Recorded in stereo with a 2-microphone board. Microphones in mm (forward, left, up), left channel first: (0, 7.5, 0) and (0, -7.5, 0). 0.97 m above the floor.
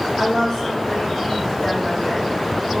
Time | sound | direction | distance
0.2 | a woman speaking | 35° left (ahead or behind) | 1.7 m